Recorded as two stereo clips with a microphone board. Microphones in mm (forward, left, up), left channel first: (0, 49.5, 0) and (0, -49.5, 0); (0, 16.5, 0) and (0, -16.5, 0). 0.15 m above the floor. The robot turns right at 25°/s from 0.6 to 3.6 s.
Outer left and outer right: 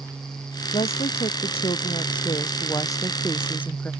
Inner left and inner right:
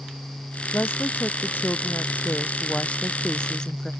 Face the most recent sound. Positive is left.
turn(degrees=160)